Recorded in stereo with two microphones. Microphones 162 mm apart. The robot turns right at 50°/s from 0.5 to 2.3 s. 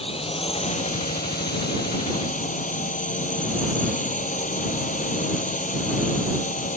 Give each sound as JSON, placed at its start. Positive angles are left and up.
{"t": 0.0, "sound": "a drone", "azimuth_deg": 40}